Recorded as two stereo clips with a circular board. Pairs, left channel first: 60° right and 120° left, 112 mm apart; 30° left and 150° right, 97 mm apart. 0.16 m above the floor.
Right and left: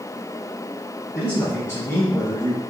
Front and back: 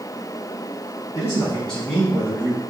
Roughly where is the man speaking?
Ahead.